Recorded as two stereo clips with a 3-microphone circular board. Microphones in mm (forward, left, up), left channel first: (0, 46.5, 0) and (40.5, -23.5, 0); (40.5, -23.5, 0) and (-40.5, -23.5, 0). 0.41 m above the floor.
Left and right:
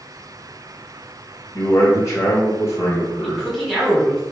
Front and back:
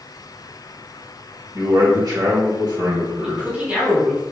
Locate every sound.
1.5 s a man speaking: 160° left, 1.5 m
3.2 s a man speaking: 160° right, 1.1 m